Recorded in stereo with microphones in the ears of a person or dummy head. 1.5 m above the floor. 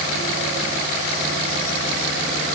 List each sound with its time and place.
Only background noise.